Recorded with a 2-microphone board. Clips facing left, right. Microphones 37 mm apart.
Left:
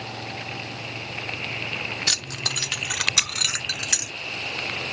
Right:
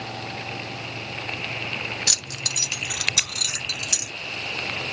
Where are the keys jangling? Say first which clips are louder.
Left 2 dB; 20° left (ahead or behind), 0.6 m; by 4.1 s 45° left (ahead or behind), 1.5 m.